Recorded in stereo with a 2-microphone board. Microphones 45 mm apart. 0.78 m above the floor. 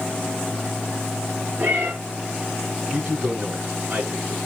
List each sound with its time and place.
1.6 s a cat meowing: 50° right (ahead or behind), 8 m
2.9 s a man speaking: 45° right (ahead or behind), 7.5 m